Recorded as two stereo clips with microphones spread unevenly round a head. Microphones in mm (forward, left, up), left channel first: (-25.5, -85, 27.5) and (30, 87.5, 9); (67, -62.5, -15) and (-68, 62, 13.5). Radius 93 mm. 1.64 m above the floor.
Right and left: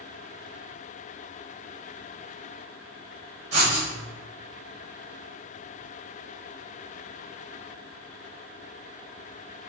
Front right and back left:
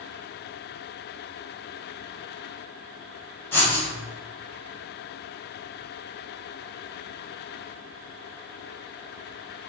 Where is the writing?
40° left, 1.4 m.